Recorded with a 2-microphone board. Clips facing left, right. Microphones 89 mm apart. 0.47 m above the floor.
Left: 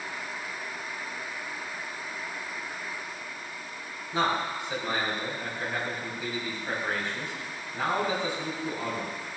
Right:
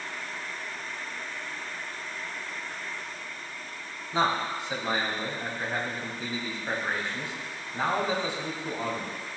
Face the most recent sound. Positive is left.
turn(degrees=-20)  # may be behind; listen again after turning